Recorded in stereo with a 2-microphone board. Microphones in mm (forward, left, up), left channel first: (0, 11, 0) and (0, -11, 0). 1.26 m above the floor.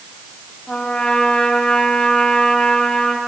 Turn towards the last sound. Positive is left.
turn(degrees=35)  # may be behind; listen again after turning